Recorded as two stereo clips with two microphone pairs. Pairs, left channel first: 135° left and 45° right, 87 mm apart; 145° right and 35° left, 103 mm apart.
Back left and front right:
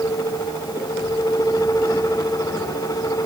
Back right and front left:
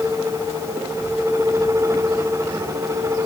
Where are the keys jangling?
No keys jangling in this recording.